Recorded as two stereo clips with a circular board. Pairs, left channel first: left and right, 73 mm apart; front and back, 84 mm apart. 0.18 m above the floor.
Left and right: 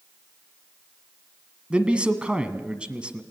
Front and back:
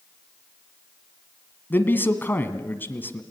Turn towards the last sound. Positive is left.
turn(degrees=-30)